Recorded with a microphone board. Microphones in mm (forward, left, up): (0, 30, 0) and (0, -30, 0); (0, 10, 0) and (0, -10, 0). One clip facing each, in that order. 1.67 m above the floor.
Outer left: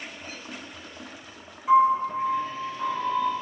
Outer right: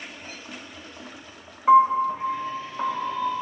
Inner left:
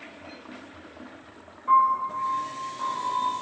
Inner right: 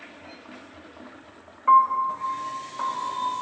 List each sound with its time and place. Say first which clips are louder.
1.7 s a piano: outer right 3 dB, inner right 3 dB; 45° right (ahead or behind), 0.7 m